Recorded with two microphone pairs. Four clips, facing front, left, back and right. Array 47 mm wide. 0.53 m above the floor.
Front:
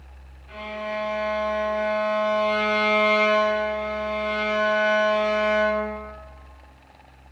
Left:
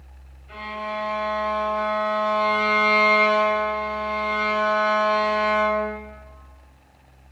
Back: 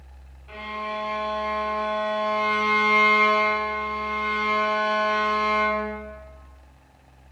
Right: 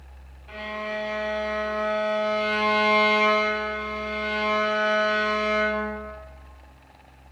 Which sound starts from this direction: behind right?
A violin, at 0.5 s.